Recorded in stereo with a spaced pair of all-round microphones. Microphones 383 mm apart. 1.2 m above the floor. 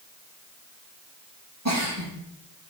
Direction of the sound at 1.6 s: 40° right (ahead or behind).